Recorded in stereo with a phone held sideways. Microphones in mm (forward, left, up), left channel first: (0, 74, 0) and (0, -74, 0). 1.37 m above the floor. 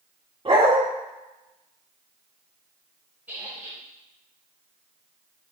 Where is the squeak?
10° right (ahead or behind), 1.8 m.